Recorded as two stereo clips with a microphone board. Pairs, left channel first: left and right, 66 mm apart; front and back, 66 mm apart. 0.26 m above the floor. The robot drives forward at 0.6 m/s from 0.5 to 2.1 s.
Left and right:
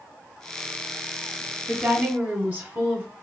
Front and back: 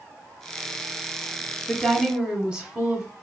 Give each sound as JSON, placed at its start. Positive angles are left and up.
{"t": 1.7, "sound": "a woman speaking", "azimuth_deg": -95, "distance_m": 1.0}